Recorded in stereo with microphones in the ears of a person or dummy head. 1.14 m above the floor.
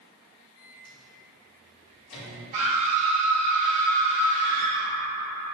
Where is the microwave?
70° left (ahead or behind), 1.7 m.